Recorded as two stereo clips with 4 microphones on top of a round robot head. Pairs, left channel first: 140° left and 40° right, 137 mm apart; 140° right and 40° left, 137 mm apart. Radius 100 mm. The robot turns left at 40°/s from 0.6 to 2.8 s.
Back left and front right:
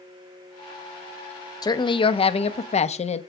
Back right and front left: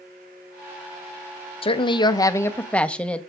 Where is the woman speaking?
170° right, 0.9 m; by 3.2 s 145° left, 0.9 m.